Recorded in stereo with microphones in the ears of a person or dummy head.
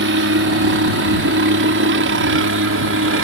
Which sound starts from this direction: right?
A helicopter, at 0.0 s.